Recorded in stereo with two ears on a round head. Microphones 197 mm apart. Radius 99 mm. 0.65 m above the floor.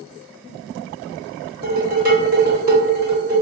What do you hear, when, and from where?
1.6 s dishes clattering: 45° right (ahead or behind), 1.4 m